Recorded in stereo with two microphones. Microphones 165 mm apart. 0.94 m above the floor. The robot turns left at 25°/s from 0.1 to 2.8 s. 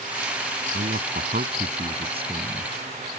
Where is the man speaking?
110° right; by 2.7 s 160° right.